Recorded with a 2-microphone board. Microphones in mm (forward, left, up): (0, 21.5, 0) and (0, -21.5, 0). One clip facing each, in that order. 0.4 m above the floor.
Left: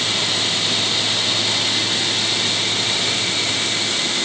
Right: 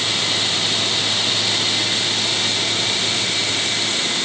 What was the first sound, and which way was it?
Only background noise.